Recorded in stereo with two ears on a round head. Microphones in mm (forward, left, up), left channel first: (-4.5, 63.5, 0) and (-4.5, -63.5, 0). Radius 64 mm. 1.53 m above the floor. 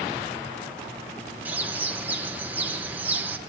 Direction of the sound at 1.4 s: 10° right (ahead or behind).